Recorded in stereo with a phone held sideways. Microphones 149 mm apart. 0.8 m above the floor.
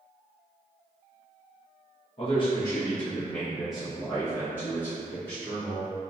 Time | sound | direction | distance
2.2 | a man speaking | 40° left (ahead or behind) | 0.9 m